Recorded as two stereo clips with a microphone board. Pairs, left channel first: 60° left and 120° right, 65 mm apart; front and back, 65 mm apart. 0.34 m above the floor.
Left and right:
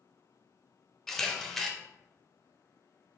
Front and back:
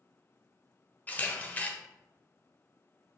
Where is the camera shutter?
15° right, 0.6 m.